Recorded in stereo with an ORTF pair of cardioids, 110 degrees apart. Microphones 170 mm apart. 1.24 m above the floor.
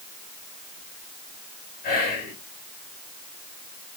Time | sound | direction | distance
1.8 | whispering | 65° left | 2 m